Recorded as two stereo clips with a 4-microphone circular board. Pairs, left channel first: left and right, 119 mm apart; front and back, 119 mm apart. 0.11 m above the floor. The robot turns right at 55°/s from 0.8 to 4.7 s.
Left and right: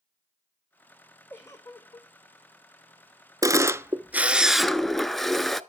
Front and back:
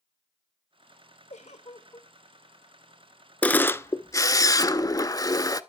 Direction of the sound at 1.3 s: 15° left.